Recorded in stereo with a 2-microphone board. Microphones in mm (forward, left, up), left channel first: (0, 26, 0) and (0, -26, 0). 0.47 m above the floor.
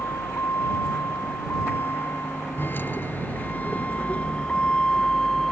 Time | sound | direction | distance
0.0 | a vehicle | 50° left (ahead or behind) | ?